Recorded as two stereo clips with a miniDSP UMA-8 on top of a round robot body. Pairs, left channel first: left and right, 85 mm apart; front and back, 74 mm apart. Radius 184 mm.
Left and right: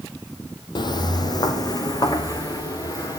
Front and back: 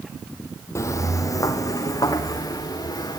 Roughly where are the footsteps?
Ahead left.